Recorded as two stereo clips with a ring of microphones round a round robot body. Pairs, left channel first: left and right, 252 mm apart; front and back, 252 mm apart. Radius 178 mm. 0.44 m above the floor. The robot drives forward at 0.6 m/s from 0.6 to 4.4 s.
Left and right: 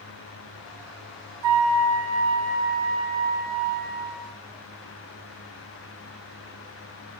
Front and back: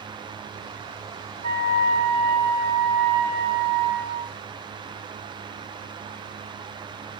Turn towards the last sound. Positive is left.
turn(degrees=-165)